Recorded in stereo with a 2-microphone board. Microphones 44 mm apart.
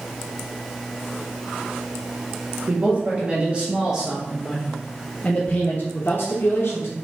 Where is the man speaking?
35° right (ahead or behind), 1.8 m; by 6.9 s 65° left (ahead or behind), 1.5 m.